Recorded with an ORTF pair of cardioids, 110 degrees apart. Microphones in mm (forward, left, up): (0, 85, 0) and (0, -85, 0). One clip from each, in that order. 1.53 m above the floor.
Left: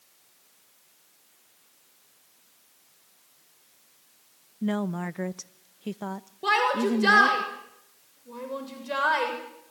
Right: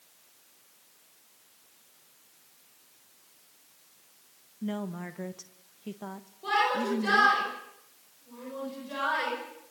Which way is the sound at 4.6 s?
40° left.